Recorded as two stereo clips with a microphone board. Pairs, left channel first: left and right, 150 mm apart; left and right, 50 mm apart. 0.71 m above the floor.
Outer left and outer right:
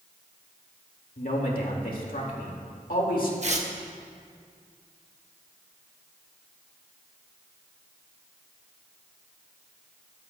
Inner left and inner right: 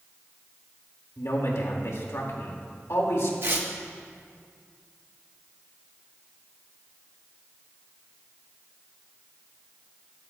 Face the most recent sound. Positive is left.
turn(degrees=-50)  # may be behind; listen again after turning